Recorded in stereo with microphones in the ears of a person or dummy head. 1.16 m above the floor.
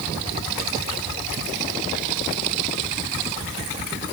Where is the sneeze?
No sneeze in this recording.